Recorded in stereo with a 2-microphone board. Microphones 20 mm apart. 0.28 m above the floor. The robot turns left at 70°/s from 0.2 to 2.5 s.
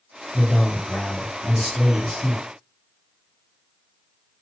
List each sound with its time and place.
0.3 s a man speaking: 150° left, 1.7 m; by 2.4 s straight ahead, 1.7 m